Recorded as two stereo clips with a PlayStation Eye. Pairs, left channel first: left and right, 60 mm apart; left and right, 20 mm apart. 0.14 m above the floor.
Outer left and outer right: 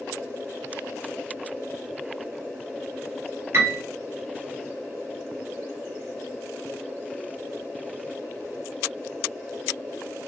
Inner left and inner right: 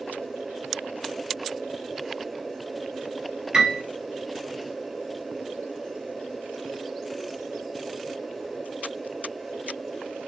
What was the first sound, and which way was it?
A piano, 50° right (ahead or behind).